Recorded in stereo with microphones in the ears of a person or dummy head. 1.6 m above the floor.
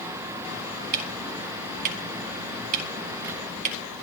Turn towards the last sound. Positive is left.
turn(degrees=-45)  # may be behind; listen again after turning